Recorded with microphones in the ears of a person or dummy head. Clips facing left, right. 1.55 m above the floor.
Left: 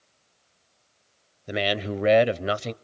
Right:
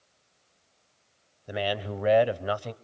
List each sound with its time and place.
1.5 s a man speaking: 30° left (ahead or behind), 0.9 m